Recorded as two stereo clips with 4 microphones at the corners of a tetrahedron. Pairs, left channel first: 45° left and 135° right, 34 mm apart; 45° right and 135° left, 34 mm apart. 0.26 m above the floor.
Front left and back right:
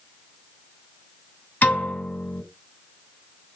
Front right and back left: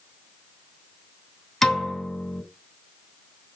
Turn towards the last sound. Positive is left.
turn(degrees=30)